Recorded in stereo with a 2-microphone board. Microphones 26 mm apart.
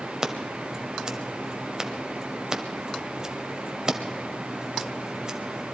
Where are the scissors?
30° right (ahead or behind), 1.3 m.